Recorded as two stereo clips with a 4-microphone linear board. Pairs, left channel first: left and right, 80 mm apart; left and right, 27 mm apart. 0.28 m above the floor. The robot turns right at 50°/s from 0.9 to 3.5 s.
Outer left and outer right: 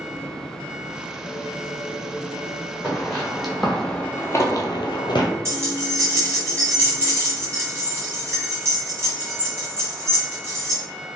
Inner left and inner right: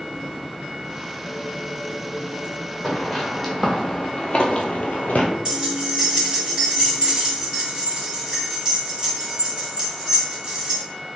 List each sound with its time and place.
2.8 s footsteps: 20° left (ahead or behind), 1.1 m; by 5.3 s 70° left (ahead or behind), 0.6 m
5.5 s keys jangling: 35° right (ahead or behind), 1.1 m